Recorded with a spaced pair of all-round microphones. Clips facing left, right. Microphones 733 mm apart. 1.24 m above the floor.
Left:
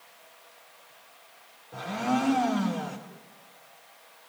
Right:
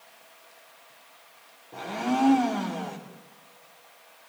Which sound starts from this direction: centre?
A blender, at 1.7 s.